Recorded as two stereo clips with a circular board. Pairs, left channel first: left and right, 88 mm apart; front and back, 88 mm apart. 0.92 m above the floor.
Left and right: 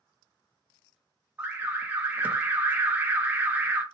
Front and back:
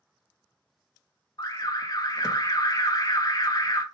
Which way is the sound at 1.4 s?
25° right.